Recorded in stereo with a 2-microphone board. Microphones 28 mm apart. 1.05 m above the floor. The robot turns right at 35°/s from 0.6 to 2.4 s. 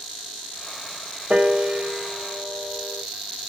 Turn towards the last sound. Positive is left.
turn(degrees=-30)  # may be behind; listen again after turning